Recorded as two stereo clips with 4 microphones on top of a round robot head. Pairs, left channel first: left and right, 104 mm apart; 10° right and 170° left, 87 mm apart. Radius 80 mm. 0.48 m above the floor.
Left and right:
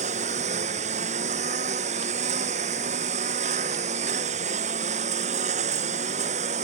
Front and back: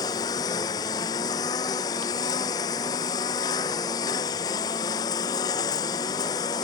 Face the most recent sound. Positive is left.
turn(degrees=-70)